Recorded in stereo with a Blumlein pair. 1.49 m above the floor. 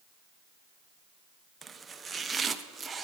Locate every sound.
1.6 s chopping: 15° right, 0.7 m